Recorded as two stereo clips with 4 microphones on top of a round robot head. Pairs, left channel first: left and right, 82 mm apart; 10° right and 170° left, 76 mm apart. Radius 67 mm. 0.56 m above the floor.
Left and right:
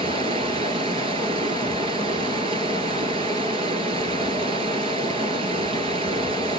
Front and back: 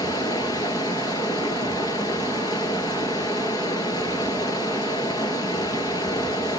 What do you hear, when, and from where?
0.0 s running water: 60° right, 2.0 m